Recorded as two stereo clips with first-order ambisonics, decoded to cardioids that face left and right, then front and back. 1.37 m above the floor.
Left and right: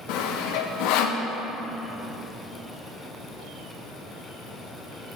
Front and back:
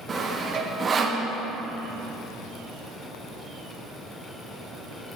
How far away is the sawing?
About 0.9 m.